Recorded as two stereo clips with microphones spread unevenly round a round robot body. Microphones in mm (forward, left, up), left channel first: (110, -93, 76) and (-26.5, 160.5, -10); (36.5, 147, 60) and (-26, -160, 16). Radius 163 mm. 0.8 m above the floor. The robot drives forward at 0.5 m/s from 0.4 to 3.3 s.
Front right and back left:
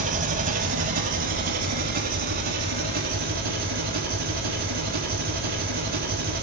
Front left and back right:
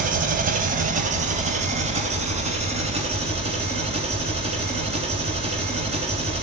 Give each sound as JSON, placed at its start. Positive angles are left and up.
{"t": 0.0, "sound": "an engine running", "azimuth_deg": -170, "distance_m": 1.3}